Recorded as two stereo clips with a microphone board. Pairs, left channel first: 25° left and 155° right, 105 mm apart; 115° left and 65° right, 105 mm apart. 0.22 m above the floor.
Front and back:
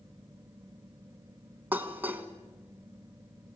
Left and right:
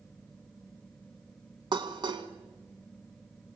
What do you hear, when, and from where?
1.7 s dishes clattering: 90° right, 1.3 m